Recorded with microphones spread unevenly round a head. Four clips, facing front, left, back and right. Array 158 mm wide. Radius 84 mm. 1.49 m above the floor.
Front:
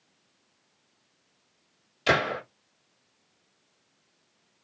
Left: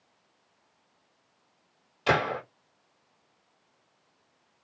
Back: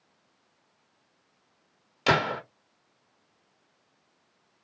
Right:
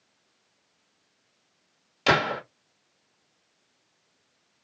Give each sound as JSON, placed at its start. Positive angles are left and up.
{"t": 2.1, "sound": "a gunshot", "azimuth_deg": -125, "distance_m": 1.4}